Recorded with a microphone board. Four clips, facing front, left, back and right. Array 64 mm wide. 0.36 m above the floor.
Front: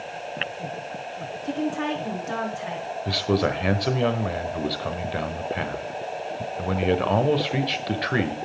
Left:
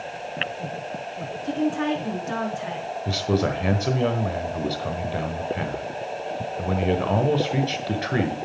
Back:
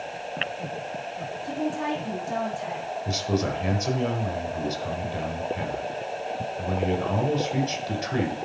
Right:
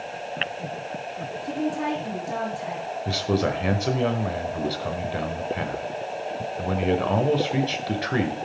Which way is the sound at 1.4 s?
40° left.